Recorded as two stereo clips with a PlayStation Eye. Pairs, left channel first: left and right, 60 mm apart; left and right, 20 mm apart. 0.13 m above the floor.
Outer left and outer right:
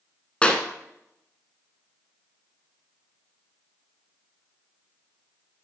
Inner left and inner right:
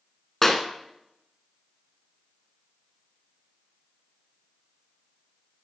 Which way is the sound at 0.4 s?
20° left (ahead or behind).